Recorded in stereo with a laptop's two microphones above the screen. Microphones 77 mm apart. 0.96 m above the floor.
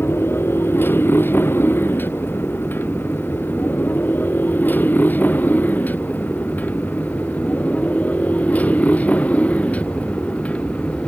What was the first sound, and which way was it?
A motorcycle, 30° left (ahead or behind).